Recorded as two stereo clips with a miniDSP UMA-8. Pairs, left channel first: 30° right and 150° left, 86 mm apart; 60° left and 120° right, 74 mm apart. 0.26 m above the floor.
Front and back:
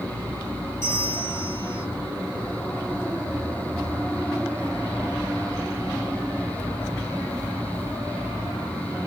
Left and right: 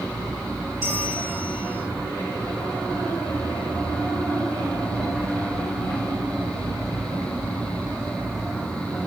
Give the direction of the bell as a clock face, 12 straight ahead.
3 o'clock.